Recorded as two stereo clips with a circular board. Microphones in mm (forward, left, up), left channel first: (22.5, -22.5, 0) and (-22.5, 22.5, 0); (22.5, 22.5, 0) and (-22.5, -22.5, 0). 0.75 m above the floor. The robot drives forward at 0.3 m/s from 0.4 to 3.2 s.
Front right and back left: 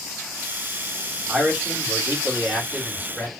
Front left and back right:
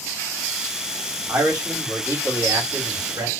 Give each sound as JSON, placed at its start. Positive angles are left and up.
{"t": 1.3, "sound": "a man speaking", "azimuth_deg": -145, "distance_m": 1.4}